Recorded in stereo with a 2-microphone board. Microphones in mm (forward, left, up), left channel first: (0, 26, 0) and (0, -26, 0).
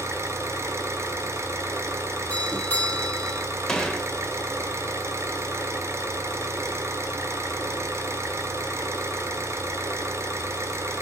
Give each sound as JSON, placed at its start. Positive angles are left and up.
{"t": 0.0, "sound": "an engine running", "side_deg": -65, "distance_m": 2.0}
{"t": 2.3, "sound": "a doorbell", "side_deg": 25, "distance_m": 1.2}
{"t": 3.7, "sound": "a gunshot", "side_deg": 15, "distance_m": 1.3}